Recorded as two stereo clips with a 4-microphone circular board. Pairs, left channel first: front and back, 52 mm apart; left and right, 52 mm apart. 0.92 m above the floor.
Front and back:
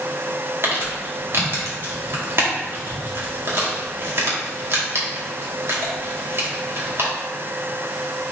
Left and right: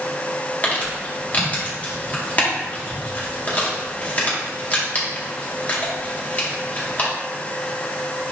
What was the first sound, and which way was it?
Crumpling, 145° left.